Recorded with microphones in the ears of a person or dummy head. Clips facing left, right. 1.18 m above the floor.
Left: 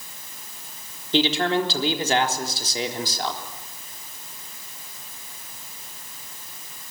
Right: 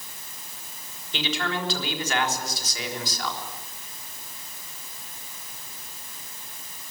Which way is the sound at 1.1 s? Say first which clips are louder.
Left 8 dB; 30° left (ahead or behind).